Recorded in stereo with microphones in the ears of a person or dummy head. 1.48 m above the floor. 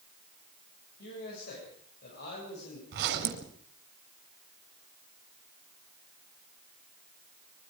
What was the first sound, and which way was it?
A man speaking, 55° left (ahead or behind).